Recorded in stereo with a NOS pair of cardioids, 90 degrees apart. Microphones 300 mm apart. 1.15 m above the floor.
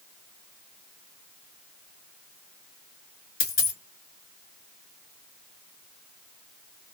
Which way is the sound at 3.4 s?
50° left.